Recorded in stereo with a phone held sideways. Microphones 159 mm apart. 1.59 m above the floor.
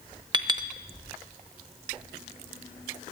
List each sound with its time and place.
0.3 s a clink: 30° right (ahead or behind), 0.7 m